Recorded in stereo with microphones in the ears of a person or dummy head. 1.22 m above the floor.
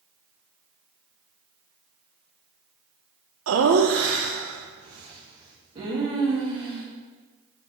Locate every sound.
3.5 s laughter: 80° right, 0.8 m; by 6.8 s 20° right (ahead or behind), 3 m